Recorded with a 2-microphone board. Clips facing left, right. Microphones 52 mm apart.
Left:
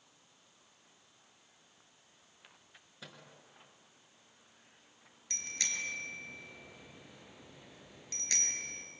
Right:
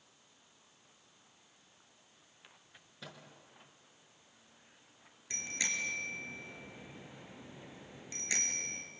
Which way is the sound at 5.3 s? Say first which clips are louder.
Right 2 dB; 15° right (ahead or behind).